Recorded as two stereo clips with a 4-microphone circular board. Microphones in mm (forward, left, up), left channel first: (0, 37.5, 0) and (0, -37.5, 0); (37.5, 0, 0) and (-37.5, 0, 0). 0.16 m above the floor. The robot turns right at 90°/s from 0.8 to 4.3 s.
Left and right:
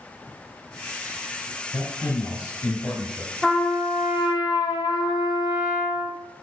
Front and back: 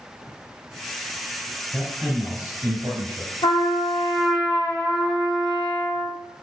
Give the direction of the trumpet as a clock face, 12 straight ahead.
12 o'clock.